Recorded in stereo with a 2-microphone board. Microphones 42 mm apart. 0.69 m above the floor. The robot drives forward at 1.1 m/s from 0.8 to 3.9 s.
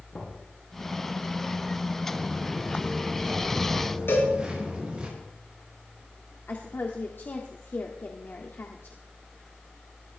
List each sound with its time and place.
0.1 s knocking: 30° left (ahead or behind), 7.5 m
2.1 s footsteps: 5° right (ahead or behind), 7.5 m; by 5.1 s 25° right (ahead or behind), 11 m
4.1 s a cowbell: 70° left (ahead or behind), 6.5 m
6.5 s a woman speaking: 60° left (ahead or behind), 1.6 m